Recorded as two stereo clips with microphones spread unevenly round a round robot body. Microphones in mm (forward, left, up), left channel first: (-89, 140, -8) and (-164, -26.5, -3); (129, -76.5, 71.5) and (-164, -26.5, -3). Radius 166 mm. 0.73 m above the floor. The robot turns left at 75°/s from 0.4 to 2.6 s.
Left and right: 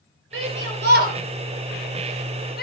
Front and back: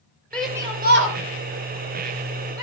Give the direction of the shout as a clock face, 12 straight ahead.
3 o'clock.